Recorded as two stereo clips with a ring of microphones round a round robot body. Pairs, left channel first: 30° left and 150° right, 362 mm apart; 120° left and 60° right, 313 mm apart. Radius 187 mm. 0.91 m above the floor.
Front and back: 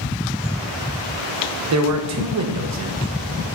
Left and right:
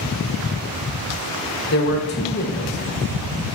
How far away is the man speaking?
About 1.0 m.